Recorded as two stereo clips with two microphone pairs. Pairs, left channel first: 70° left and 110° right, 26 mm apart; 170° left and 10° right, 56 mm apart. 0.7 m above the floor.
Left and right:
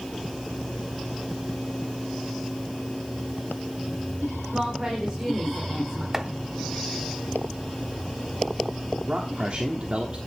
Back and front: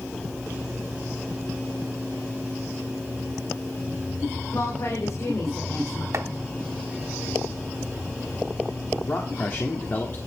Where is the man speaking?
145° right, 1.4 m.